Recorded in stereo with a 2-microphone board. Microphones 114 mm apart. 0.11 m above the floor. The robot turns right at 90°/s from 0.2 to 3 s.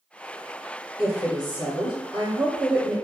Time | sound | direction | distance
1.0 | a woman speaking | 170° right | 1.8 m